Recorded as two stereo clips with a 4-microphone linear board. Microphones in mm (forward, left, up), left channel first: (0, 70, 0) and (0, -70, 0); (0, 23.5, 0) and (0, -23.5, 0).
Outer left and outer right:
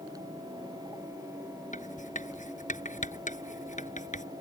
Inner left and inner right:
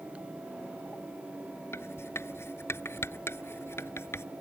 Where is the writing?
60° left (ahead or behind).